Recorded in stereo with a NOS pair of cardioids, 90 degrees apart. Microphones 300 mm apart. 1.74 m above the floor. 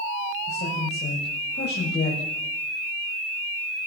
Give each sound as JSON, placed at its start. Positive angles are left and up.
{"t": 0.5, "sound": "a woman speaking", "azimuth_deg": 35, "distance_m": 8.5}